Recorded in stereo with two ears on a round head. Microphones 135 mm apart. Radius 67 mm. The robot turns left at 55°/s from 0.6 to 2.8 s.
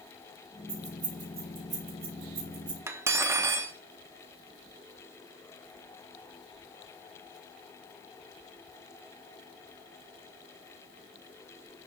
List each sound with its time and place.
0.7 s keys jangling: 35° right (ahead or behind), 5 m; by 2.8 s 30° right (ahead or behind), 5 m
2.9 s cutlery clinking: 15° right (ahead or behind), 1.0 m